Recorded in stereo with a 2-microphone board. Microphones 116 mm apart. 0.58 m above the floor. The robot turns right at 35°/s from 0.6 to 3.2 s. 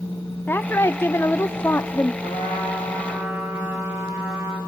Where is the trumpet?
55° right, 3.5 m; by 4.6 s 20° right, 3.5 m.